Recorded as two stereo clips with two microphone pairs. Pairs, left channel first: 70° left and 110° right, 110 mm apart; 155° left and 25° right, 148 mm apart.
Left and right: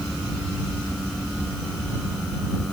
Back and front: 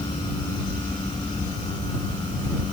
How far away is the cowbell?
No cowbell in this recording.